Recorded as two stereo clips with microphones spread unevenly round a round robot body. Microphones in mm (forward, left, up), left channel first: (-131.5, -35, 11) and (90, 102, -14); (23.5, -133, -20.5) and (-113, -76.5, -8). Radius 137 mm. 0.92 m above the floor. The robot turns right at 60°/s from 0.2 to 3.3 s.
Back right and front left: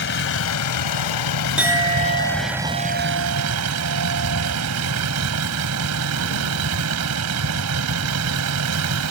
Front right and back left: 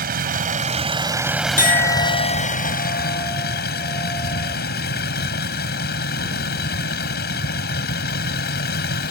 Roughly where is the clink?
Ahead right.